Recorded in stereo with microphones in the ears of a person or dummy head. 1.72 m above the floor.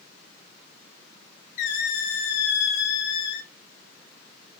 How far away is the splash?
No splash in this recording.